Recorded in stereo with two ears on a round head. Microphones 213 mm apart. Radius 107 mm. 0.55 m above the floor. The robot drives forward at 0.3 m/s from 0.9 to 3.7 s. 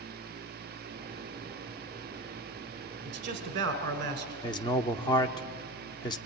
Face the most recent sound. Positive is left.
turn(degrees=20)  # may be behind; listen again after turning